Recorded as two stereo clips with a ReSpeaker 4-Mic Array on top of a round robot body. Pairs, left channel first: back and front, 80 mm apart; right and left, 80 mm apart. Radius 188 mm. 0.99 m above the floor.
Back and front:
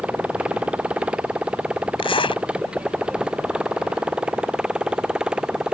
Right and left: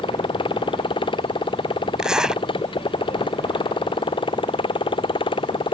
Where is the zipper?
170° left.